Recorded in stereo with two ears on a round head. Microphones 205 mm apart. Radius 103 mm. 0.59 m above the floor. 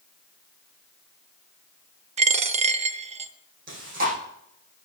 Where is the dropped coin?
30° right (ahead or behind), 0.8 m.